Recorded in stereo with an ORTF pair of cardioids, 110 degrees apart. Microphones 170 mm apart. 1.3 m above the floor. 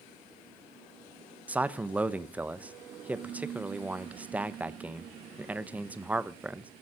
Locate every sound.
1.5 s a man speaking: 10° right, 0.9 m